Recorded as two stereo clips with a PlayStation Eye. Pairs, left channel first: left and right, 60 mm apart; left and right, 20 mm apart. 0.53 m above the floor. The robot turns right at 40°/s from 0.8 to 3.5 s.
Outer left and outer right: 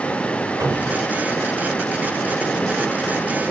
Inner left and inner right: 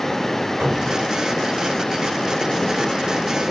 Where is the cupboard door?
55° right (ahead or behind), 1.7 m; by 1.1 s 65° right (ahead or behind), 1.7 m.